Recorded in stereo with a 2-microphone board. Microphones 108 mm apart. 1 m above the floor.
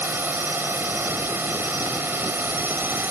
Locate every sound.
0.0 s a drone: 20° right (ahead or behind)